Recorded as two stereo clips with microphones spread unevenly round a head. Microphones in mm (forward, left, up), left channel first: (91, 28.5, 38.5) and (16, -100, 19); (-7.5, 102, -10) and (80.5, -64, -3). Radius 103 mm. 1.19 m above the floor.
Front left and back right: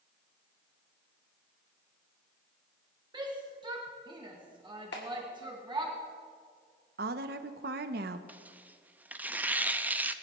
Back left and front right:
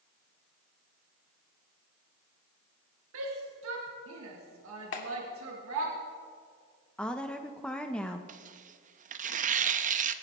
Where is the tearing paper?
35° right, 0.6 m.